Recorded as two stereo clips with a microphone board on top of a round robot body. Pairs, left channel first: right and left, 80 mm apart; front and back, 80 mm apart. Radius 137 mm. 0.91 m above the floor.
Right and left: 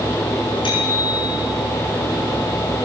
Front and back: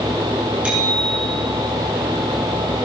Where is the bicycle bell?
105° right, 9.5 m.